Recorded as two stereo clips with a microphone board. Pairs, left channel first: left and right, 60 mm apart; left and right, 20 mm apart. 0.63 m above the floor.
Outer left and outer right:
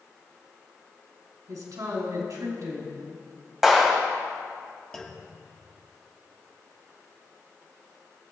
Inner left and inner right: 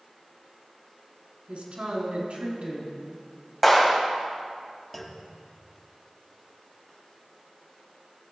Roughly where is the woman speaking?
Right.